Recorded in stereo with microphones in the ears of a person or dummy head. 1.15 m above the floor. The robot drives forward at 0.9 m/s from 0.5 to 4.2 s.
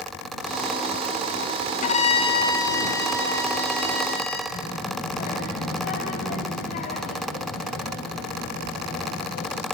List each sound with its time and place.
1.8 s a violin: 40° left (ahead or behind), 0.6 m; by 4.4 s 10° left (ahead or behind), 2.5 m
4.5 s a child speaking: 60° left (ahead or behind), 3 m